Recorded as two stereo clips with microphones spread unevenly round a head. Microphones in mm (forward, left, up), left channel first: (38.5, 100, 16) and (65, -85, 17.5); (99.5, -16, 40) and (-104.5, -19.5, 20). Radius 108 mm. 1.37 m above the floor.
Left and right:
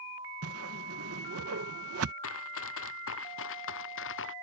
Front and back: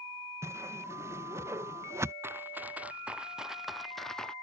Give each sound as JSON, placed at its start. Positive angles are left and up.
{"t": 0.4, "sound": "a whoosh", "azimuth_deg": -100}
{"t": 2.2, "sound": "running footsteps", "azimuth_deg": 100}